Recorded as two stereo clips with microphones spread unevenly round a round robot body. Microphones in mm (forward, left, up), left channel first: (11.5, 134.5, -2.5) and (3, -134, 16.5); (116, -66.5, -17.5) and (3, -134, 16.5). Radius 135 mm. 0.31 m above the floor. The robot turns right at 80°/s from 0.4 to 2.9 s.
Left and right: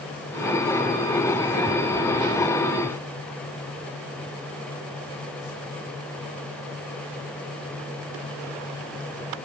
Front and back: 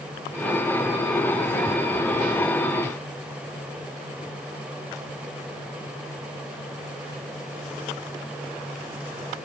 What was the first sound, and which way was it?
Only background noise.